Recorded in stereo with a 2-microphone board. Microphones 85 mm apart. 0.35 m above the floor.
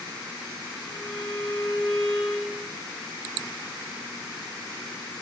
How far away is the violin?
About 4 m.